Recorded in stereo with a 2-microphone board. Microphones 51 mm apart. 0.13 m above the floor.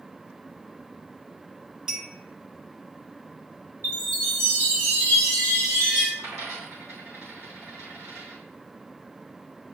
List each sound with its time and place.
1.9 s a clink: 15° right (ahead or behind), 1.4 m
3.8 s a chime: 55° right (ahead or behind), 3.5 m
6.2 s a dropped coin: 80° right, 3.5 m